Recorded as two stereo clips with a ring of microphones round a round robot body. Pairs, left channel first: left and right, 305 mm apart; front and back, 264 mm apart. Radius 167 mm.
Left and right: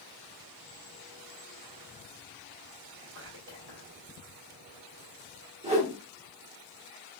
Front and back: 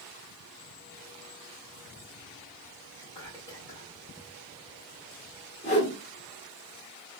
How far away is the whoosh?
About 1.6 m.